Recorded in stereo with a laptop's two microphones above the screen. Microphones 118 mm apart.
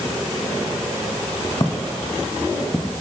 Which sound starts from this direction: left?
Footsteps, at 1.6 s.